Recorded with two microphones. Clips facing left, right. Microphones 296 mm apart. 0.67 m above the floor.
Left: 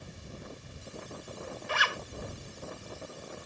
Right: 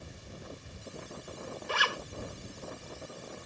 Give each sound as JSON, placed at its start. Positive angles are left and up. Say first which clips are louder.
{"t": 1.7, "sound": "a zipper", "louder": "right 1 dB", "side_deg": -45}